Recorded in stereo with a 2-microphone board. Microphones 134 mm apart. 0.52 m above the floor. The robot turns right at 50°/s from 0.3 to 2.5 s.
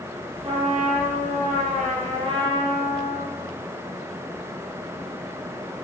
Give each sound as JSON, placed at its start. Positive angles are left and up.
{"t": 0.4, "sound": "a trumpet", "azimuth_deg": -135, "distance_m": 7.5}